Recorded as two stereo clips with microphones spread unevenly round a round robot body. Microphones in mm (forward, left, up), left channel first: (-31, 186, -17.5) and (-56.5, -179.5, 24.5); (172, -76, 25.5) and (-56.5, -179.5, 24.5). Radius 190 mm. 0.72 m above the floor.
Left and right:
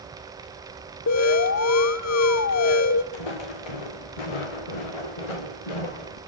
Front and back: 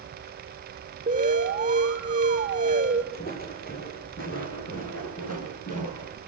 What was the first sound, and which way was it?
An alarm, 135° left.